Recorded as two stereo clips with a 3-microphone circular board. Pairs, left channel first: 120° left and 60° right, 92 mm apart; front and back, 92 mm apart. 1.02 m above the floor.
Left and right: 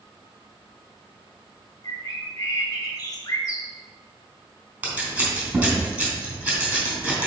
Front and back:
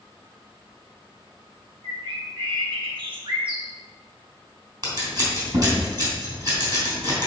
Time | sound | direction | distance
1.8 | a bird | 165° left | 1.4 m
4.8 | scissors | 135° right | 3.5 m